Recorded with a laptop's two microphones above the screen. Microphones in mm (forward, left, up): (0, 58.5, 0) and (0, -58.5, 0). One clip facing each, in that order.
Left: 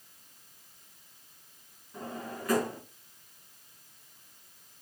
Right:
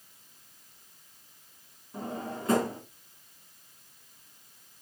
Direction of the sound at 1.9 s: 25° right (ahead or behind).